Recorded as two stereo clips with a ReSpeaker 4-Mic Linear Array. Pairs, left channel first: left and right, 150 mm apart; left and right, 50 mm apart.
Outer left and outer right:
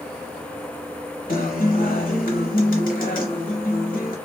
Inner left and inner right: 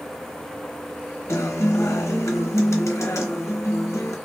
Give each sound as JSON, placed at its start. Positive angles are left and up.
{"t": 1.3, "sound": "a guitar", "side_deg": 70, "distance_m": 0.8}